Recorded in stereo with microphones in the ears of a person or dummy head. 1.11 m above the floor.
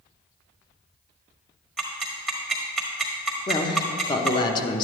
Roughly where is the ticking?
Centre.